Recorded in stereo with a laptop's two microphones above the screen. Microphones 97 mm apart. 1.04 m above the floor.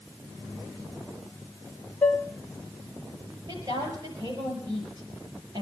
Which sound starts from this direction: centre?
Dishes clattering, at 2.0 s.